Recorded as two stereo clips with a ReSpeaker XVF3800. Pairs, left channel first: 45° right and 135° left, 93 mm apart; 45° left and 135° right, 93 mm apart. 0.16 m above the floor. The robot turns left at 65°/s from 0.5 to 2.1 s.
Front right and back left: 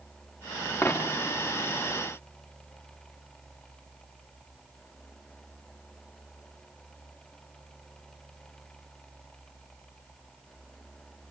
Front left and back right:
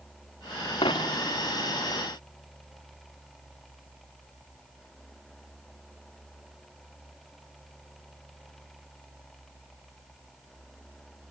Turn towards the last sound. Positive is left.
turn(degrees=-60)